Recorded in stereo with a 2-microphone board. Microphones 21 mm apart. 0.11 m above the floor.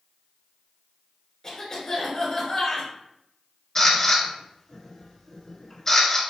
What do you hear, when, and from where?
1.4 s a cough: 30° left (ahead or behind), 1.6 m
3.8 s a camera shutter: 25° left (ahead or behind), 1.2 m